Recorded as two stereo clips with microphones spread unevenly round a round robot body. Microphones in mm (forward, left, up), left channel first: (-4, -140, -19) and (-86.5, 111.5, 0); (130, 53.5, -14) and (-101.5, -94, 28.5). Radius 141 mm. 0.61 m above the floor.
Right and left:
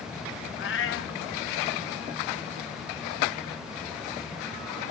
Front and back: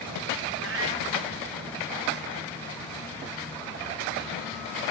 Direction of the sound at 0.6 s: 115° right.